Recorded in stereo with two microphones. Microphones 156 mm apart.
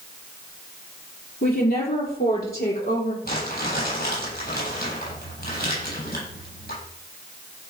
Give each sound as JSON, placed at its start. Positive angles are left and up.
{"t": 1.4, "sound": "a woman speaking", "side_deg": 75, "distance_m": 6.0}
{"t": 3.2, "sound": "crumpling", "side_deg": 85, "distance_m": 9.0}